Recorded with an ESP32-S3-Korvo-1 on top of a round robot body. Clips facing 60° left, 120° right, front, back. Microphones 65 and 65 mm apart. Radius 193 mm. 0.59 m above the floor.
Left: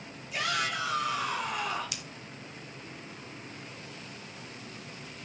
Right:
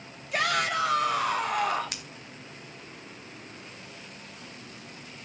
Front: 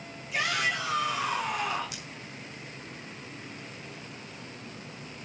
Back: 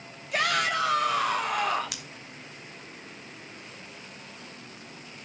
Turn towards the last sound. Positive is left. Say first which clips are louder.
# right 1 dB, back 1 dB
turn(degrees=-165)